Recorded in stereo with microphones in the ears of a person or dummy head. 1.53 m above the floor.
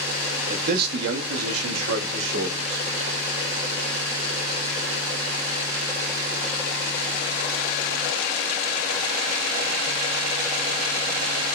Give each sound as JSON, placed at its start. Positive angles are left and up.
{"t": 0.5, "sound": "a man speaking", "side_deg": -35, "distance_m": 0.7}